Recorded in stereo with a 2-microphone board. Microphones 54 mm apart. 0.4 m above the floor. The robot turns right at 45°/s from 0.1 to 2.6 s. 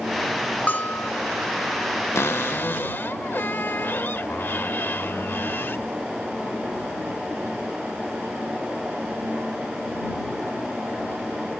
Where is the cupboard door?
55° left (ahead or behind); by 5.8 s 45° left (ahead or behind).